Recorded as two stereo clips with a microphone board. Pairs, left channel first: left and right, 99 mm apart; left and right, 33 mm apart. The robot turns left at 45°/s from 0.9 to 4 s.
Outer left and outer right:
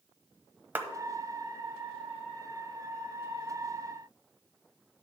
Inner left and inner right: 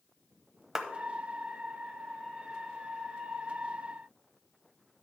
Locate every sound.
0.8 s a clap: 20° right (ahead or behind), 1.0 m